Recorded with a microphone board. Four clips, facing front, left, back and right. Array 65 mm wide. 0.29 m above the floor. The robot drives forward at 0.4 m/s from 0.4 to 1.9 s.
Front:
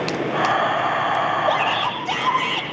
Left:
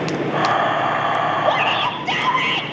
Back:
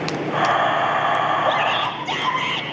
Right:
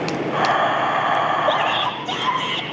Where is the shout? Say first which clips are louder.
Left 1 dB, even; 105° left, 5.5 m.